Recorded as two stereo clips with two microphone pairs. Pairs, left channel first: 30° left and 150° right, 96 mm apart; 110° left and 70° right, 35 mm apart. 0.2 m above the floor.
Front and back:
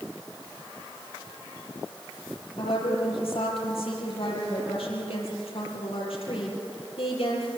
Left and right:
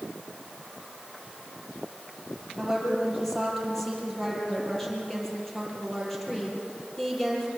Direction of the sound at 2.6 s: 30° left.